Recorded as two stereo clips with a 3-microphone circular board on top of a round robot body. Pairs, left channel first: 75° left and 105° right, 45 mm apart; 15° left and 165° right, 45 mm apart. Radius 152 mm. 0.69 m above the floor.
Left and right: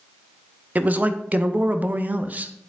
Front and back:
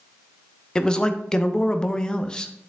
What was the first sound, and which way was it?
A man speaking, 55° right.